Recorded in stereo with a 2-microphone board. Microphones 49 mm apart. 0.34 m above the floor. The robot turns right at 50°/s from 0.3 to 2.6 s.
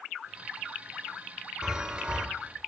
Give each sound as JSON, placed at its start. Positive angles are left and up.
{"t": 1.6, "sound": "a chime", "side_deg": -15, "distance_m": 0.5}